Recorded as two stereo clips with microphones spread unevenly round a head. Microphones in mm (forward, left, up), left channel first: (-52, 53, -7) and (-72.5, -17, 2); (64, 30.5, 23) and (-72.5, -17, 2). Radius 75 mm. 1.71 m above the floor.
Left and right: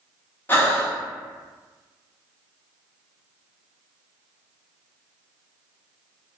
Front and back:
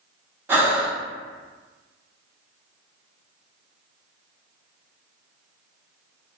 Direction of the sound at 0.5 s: 120° left.